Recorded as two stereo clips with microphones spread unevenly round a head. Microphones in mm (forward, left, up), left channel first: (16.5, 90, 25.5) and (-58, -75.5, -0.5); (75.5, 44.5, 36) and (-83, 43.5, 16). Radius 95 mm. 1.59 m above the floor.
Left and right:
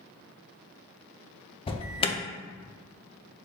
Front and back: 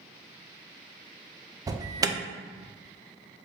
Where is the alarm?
125° left, 0.5 m.